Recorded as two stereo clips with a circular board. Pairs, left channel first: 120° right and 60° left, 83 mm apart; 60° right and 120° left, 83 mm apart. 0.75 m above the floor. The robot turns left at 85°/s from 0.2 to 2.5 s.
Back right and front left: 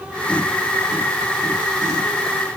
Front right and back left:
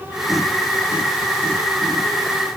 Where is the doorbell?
No doorbell in this recording.